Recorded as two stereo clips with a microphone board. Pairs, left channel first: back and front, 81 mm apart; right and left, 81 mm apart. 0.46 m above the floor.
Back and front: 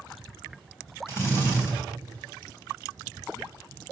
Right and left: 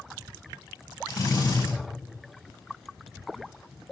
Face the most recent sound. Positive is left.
turn(degrees=-125)